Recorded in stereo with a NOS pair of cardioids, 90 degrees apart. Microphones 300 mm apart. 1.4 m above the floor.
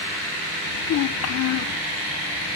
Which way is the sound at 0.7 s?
60° left.